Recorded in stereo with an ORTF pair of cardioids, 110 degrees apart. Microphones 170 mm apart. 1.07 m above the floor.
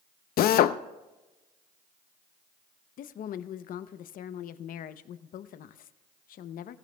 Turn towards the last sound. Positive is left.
turn(degrees=55)